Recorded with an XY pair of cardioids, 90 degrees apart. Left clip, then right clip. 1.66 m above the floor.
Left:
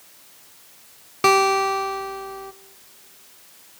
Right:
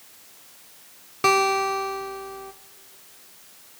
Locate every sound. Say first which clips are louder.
1.2 s a guitar: left 3 dB; 25° left, 1.3 m